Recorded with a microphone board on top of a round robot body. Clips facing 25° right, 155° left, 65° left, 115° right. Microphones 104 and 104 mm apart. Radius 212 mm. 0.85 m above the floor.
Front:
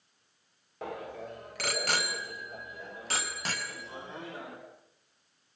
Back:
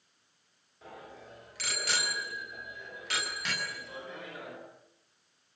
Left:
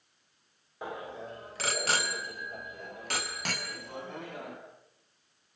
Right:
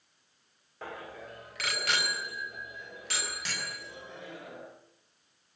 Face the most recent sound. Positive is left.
turn(degrees=35)